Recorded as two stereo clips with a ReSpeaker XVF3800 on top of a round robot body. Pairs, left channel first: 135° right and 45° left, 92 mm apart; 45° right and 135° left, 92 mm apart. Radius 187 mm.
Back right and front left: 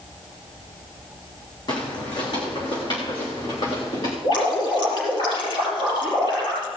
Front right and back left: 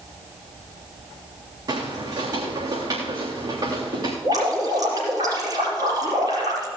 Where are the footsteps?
Straight behind, 2.5 m; by 4.1 s 175° right, 4 m.